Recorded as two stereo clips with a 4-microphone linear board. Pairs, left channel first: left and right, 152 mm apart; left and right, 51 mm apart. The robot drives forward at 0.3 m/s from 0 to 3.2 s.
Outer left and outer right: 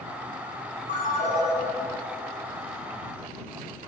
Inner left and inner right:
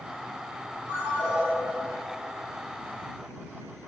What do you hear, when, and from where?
0.9 s a ringtone: 55° right (ahead or behind), 1.1 m